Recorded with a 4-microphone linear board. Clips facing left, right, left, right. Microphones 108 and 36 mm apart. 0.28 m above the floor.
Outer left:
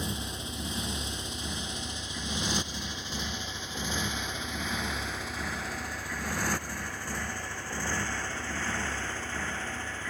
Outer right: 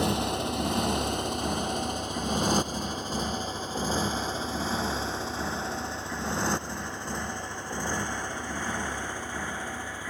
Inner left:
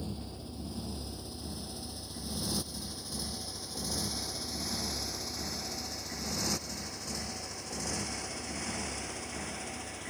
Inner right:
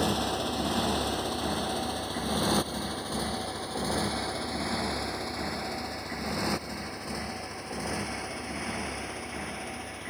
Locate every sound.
0.0 s a motorcycle: 70° right (ahead or behind); by 10.1 s 15° right (ahead or behind)